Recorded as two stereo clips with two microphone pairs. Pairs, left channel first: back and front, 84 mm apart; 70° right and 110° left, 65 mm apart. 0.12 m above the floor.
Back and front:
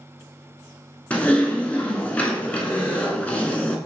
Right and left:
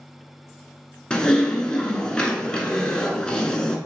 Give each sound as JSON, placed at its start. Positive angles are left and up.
{"t": 1.1, "sound": "typing on a keyboard", "azimuth_deg": -130, "distance_m": 0.7}